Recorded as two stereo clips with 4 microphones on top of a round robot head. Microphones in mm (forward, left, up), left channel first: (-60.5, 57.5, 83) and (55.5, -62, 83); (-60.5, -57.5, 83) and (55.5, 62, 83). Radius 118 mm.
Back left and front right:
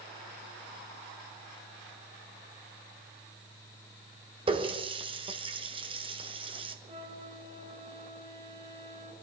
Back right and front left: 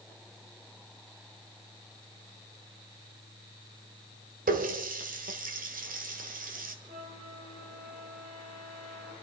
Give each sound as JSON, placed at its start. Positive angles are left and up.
{"t": 4.5, "sound": "a running tap", "azimuth_deg": 10, "distance_m": 1.5}
{"t": 6.9, "sound": "a flute", "azimuth_deg": 10, "distance_m": 5.0}